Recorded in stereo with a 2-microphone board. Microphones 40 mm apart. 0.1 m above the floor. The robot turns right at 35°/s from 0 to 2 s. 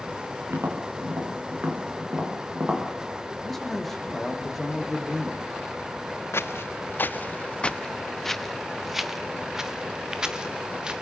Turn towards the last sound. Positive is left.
turn(degrees=-20)  # may be behind; listen again after turning